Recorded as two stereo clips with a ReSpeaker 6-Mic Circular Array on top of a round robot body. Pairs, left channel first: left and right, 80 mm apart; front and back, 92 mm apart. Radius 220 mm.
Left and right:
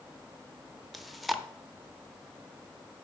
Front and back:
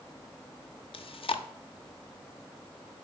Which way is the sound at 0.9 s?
Straight ahead.